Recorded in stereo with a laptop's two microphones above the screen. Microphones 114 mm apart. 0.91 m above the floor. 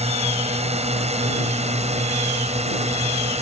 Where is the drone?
70° right (ahead or behind); by 3.4 s 75° right (ahead or behind).